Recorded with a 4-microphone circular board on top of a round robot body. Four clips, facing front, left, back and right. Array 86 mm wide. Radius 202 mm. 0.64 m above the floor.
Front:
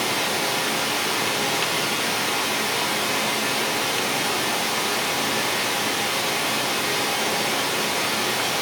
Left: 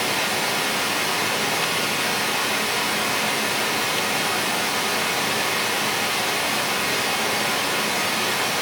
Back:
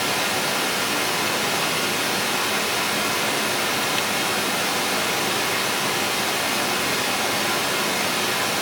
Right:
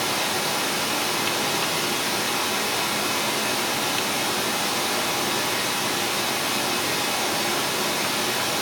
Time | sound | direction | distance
0.0 | running water | 90° left | 3.5 m